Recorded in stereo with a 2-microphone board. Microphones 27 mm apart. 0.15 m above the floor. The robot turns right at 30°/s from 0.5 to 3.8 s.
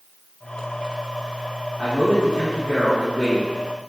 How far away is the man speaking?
About 1.3 m.